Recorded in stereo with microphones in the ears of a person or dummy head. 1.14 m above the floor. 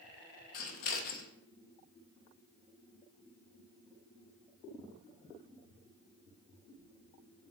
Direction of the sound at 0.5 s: 50° left (ahead or behind).